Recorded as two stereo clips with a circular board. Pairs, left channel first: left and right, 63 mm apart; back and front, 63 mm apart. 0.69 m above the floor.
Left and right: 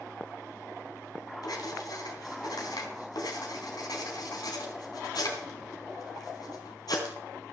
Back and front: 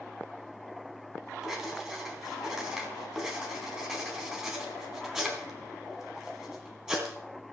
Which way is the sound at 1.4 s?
80° left.